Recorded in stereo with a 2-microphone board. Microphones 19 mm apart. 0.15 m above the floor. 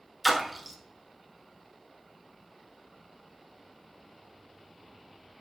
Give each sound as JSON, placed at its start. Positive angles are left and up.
{"t": 0.2, "sound": "a splash", "side_deg": 5, "distance_m": 0.8}